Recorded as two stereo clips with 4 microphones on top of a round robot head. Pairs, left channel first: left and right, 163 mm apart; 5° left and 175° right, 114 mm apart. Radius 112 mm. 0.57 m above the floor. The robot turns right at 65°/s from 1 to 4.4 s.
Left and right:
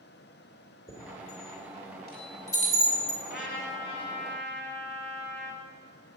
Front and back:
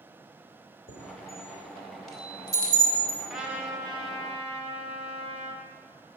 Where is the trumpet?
95° left, 2.0 m; by 5.6 s 170° left, 2.0 m.